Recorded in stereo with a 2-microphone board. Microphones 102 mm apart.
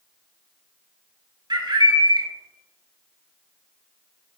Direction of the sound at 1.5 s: 50° right (ahead or behind).